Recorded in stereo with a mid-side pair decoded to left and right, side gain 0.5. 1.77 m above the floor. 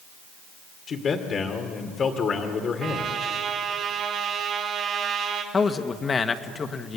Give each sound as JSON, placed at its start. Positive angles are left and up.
{"t": 0.9, "sound": "a man speaking", "azimuth_deg": 45, "distance_m": 2.5}
{"t": 2.8, "sound": "a trumpet", "azimuth_deg": -55, "distance_m": 3.5}
{"t": 5.5, "sound": "a man speaking", "azimuth_deg": 35, "distance_m": 1.7}